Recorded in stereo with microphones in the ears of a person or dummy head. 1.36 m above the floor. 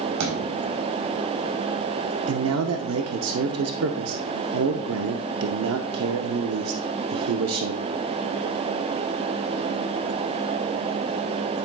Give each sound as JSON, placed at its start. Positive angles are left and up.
{"t": 0.2, "sound": "a thud", "side_deg": -70, "distance_m": 4.0}
{"t": 2.3, "sound": "a man speaking", "side_deg": -85, "distance_m": 0.7}